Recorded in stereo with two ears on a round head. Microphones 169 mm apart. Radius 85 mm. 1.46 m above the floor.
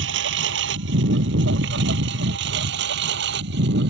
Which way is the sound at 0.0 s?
65° right (ahead or behind).